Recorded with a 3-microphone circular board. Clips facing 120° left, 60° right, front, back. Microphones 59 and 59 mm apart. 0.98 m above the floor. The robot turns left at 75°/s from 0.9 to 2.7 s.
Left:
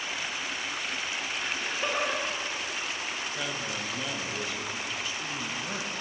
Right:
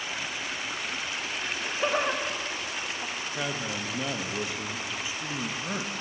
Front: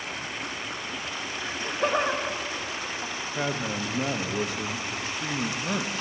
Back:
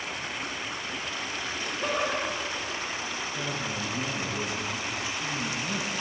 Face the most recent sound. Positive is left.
turn(degrees=10)